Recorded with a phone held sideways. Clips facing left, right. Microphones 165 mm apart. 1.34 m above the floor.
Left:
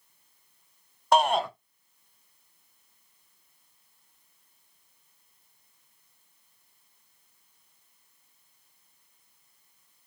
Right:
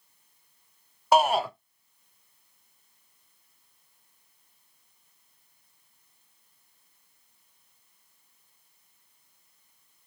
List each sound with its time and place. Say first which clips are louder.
1.1 s a shout: right 1 dB; 5° right (ahead or behind), 0.5 m